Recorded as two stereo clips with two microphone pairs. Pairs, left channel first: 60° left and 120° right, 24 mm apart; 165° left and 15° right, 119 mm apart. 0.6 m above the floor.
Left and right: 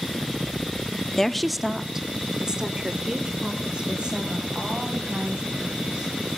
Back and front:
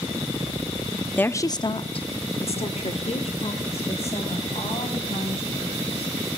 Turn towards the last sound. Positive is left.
turn(degrees=-165)